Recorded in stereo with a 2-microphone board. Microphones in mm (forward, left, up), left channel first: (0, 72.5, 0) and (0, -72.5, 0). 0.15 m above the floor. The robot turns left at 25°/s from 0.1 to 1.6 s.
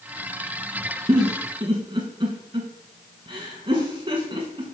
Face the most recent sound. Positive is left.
turn(degrees=-40)  # may be behind; listen again after turning